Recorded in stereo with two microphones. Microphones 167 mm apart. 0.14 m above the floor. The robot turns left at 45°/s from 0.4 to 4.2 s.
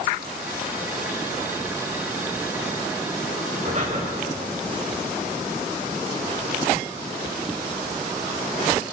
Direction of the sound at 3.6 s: 55° right (ahead or behind).